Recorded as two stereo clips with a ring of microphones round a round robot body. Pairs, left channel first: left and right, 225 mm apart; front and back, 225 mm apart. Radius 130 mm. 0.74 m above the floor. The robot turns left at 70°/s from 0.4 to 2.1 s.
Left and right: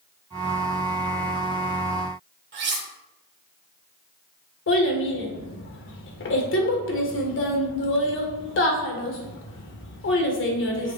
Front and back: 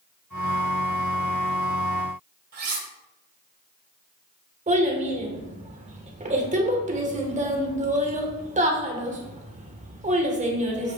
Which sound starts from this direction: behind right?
Cutlery clinking, at 2.5 s.